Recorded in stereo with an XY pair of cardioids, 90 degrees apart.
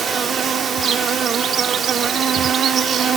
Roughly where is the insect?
Ahead right.